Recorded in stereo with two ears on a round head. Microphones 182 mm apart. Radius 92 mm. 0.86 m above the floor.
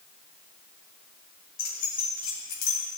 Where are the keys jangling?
45° left (ahead or behind), 4 m; by 2.8 s 60° left (ahead or behind), 4.5 m.